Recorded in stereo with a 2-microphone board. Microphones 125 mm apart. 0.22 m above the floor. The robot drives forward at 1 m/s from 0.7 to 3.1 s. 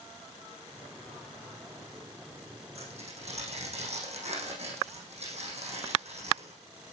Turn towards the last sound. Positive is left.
turn(degrees=-60)  # may be behind; listen again after turning